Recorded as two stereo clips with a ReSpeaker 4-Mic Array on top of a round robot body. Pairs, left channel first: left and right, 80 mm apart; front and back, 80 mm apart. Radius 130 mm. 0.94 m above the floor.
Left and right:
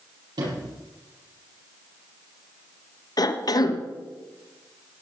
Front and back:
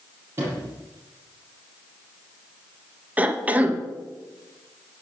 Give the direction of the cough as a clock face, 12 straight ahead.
8 o'clock.